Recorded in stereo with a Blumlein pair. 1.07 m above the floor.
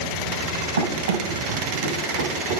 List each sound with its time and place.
0.8 s running footsteps: 65° right, 4 m; by 2.6 s 50° right, 3 m